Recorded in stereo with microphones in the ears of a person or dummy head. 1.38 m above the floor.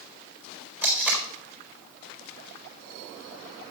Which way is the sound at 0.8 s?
5° right (ahead or behind).